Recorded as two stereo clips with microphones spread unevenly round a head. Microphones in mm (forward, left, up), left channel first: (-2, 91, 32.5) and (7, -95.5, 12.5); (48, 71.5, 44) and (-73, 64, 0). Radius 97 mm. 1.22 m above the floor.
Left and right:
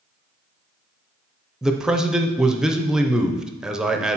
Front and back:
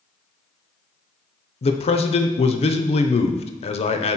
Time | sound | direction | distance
1.6 | a man speaking | 15° right | 0.7 m